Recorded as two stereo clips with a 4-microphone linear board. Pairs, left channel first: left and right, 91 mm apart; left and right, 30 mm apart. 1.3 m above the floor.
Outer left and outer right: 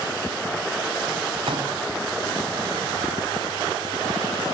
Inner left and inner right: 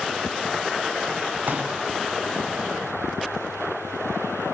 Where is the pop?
85° right, 5 m.